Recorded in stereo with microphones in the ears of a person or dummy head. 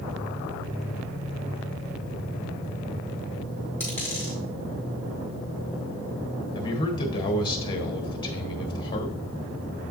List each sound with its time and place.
3.8 s a dropped coin: 10° left (ahead or behind), 2.5 m
6.5 s a man speaking: 25° left (ahead or behind), 0.9 m